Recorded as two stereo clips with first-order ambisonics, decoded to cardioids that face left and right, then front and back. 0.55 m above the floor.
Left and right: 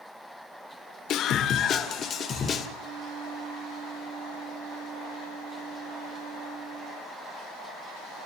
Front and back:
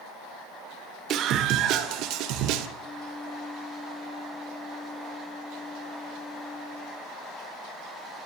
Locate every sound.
1.1 s a scream: 135° left, 1.9 m; by 2.7 s 160° left, 2.5 m
2.8 s a flute: 60° right, 4.5 m